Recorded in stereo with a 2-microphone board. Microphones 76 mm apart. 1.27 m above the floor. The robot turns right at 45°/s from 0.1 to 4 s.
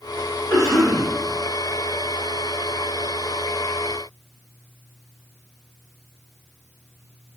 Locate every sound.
0.5 s a cough: 30° left (ahead or behind), 1.0 m; by 1.1 s 50° left (ahead or behind), 1.0 m